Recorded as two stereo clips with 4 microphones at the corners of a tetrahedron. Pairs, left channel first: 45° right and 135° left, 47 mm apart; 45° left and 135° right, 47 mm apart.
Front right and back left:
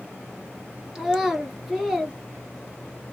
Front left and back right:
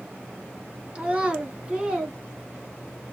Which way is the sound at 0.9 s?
145° right.